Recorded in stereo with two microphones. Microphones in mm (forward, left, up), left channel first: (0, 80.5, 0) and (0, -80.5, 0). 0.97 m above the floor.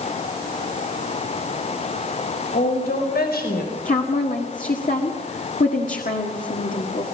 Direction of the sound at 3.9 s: 55° left (ahead or behind).